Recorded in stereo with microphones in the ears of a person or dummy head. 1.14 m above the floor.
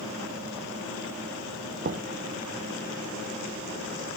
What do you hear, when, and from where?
1.8 s knocking: 50° right (ahead or behind), 0.5 m